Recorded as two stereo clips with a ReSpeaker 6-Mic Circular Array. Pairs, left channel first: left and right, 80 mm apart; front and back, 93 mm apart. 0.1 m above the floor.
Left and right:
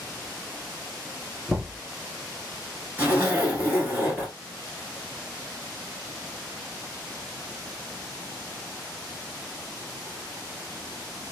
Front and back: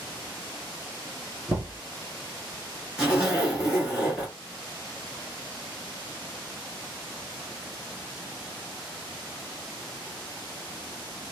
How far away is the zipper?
About 1.3 m.